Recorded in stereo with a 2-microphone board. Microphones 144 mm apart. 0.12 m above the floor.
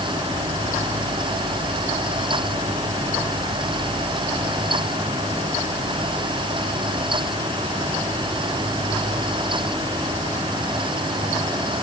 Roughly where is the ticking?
No ticking in this recording.